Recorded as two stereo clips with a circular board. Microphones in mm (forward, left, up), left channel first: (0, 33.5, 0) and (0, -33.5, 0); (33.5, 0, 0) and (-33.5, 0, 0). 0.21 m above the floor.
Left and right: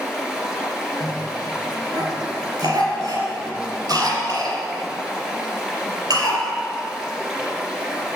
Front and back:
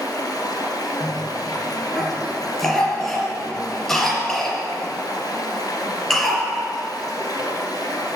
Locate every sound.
0.0 s running water: 10° right, 2.5 m
1.0 s a cough: 85° right, 3.5 m